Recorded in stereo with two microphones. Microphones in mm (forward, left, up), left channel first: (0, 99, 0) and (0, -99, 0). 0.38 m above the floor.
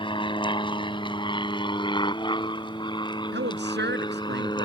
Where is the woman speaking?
65° right (ahead or behind).